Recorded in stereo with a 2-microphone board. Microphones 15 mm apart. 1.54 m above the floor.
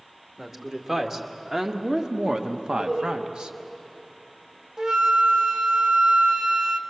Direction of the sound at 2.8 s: 70° right (ahead or behind).